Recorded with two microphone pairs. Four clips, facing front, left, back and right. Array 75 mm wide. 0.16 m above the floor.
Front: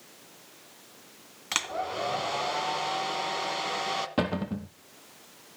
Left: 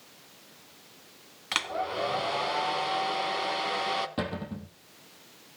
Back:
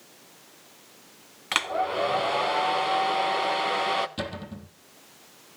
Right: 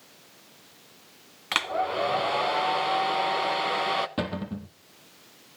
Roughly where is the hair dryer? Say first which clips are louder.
Right 4 dB, back 6 dB; behind right.